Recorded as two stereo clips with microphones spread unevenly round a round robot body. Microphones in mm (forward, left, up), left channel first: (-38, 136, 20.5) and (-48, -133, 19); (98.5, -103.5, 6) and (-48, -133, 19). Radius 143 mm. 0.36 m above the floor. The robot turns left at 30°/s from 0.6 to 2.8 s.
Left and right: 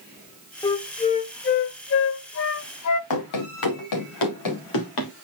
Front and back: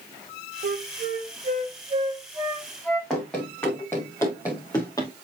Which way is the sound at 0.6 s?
160° left.